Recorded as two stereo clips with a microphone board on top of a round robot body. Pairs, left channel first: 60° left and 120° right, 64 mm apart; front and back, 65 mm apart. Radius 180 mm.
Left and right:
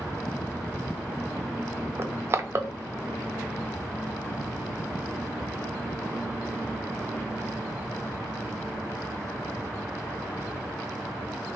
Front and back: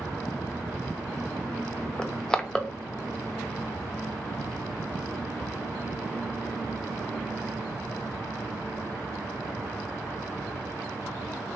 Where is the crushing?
80° right, 0.5 m.